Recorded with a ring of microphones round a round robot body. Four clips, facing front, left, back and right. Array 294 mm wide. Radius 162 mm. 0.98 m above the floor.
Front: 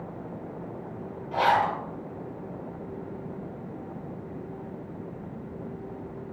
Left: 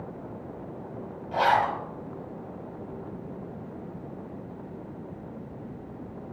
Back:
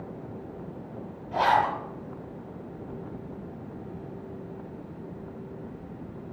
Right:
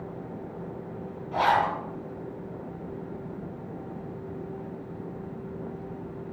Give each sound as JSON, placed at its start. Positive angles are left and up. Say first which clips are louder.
{"t": 1.3, "sound": "a zipper", "louder": "even, even", "azimuth_deg": 60, "distance_m": 1.4}